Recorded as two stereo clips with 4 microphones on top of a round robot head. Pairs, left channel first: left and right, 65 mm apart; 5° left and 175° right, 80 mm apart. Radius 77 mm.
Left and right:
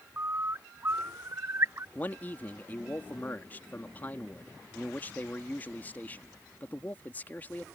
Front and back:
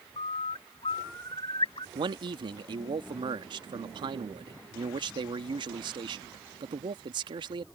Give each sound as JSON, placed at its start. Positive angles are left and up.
{"t": 0.2, "sound": "a bird", "azimuth_deg": -35}
{"t": 1.9, "sound": "a man speaking", "azimuth_deg": 160}